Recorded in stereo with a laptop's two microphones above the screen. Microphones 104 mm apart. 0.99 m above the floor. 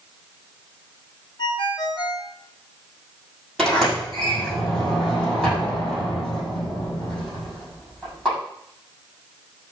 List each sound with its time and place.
1.4 s a ringtone: 50° left (ahead or behind), 1.3 m
3.6 s a sliding door: 5° left (ahead or behind), 6.5 m